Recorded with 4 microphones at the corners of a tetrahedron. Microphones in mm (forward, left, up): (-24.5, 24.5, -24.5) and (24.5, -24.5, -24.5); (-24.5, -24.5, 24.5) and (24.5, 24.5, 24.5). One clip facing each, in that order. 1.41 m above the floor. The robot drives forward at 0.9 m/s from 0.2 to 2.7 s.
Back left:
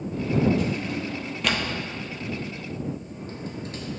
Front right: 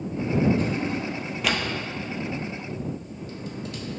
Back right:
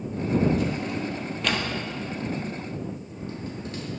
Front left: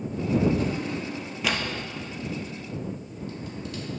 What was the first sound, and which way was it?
A drawer, 5° left.